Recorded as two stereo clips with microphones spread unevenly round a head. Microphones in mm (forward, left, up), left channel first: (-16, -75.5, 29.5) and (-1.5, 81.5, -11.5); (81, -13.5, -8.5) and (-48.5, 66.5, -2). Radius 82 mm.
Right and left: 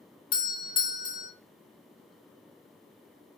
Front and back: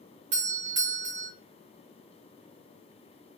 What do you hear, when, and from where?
0.3 s a doorbell: 160° right, 0.7 m